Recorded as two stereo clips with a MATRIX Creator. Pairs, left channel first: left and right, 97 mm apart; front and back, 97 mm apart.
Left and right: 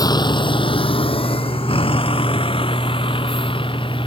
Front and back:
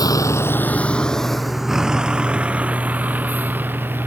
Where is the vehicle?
45° left; by 4.1 s 115° left.